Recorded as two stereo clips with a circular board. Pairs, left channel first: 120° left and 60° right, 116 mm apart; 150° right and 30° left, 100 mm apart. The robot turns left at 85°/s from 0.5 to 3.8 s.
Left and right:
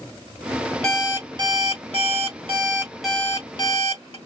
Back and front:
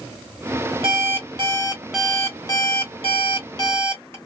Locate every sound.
0.8 s an alarm clock: 40° left, 1.4 m; by 4.2 s 150° left, 1.4 m